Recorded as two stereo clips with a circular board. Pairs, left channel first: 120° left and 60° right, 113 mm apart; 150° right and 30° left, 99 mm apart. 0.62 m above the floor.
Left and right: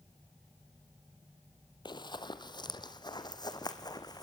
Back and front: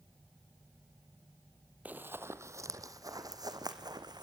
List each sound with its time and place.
1.9 s running footsteps: 100° left, 0.9 m; by 4.2 s 70° left, 2 m